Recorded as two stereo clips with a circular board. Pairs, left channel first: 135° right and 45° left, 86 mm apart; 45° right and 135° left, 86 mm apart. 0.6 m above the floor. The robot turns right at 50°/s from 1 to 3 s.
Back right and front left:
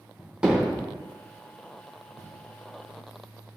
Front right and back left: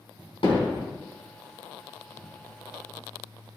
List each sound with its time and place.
0.4 s hammering: 35° right, 4 m